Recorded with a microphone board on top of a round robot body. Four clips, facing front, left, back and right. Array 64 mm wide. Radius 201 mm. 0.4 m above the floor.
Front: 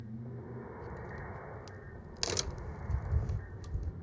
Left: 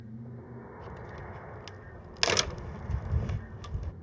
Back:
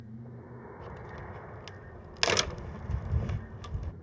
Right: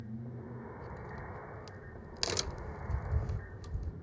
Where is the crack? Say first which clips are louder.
Left 2 dB, back 1 dB; 145° left.